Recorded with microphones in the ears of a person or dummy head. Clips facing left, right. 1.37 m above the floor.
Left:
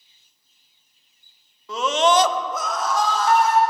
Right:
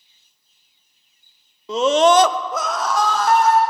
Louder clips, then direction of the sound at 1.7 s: Right 5 dB; 20° right (ahead or behind).